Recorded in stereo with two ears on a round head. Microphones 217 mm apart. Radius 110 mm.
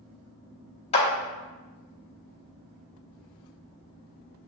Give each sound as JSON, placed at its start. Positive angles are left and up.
{"t": 0.9, "sound": "a clap", "side_deg": 25, "distance_m": 0.9}